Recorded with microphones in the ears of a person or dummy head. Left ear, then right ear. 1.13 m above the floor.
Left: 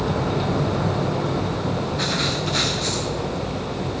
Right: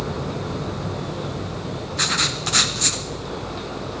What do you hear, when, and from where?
2.0 s writing: 35° right (ahead or behind), 0.7 m